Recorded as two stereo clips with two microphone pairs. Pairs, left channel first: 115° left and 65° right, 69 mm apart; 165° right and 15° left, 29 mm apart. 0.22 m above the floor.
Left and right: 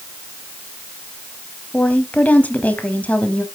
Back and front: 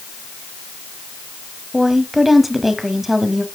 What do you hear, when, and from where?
1.7 s a woman speaking: 90° left, 1.0 m